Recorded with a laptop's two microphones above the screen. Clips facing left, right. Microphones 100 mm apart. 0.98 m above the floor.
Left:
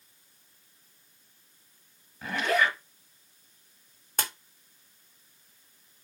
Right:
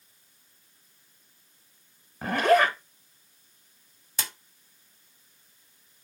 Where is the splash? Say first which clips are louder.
Left 3 dB; 50° left (ahead or behind), 0.9 m.